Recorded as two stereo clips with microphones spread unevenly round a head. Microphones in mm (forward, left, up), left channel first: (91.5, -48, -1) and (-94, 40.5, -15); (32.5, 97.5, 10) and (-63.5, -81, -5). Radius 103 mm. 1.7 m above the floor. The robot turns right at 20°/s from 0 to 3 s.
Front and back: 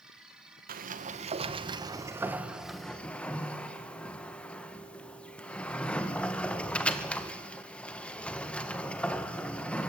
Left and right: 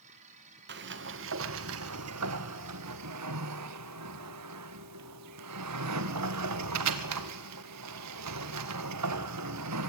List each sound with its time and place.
0.7 s a sliding door: 155° right, 1.7 m; by 9.9 s 110° right, 1.7 m